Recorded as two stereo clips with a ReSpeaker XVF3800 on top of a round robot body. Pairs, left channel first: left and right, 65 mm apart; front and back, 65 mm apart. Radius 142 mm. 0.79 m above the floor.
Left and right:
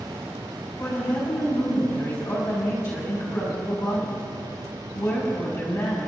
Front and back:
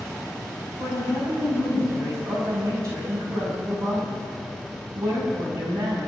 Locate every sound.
0.8 s a woman speaking: 145° left, 5.5 m